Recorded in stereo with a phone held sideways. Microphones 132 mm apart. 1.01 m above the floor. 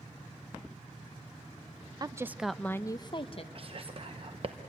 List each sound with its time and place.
2.0 s a woman speaking: 30° right (ahead or behind), 0.5 m; by 3.5 s 45° left (ahead or behind), 0.7 m
3.5 s whispering: 45° right (ahead or behind), 0.8 m